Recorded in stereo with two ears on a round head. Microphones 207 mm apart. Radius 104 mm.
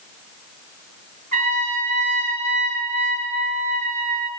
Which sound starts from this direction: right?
A trumpet, at 1.3 s.